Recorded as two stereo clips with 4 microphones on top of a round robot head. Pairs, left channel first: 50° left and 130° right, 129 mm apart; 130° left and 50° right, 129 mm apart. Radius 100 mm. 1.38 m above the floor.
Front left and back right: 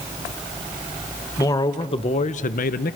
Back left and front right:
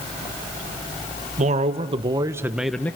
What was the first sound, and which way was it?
A man speaking, 15° right.